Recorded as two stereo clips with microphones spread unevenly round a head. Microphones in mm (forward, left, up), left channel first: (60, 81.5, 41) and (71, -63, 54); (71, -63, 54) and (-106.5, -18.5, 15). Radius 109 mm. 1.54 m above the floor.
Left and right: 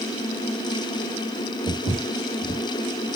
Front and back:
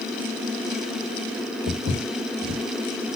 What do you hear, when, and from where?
1.7 s footsteps: 175° left, 2 m